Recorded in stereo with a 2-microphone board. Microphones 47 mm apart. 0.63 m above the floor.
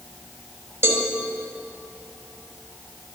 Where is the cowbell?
70° right (ahead or behind), 1.1 m.